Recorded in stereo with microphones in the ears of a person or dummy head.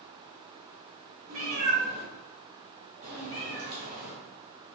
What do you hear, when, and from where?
1.3 s a cat meowing: 45° right (ahead or behind), 1.6 m; by 4.1 s 25° right (ahead or behind), 2.0 m